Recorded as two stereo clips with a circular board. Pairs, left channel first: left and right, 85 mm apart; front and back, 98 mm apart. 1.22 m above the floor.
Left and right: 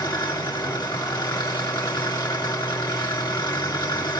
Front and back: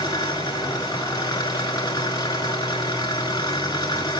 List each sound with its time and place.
0.0 s an engine running: 50° left, 4.5 m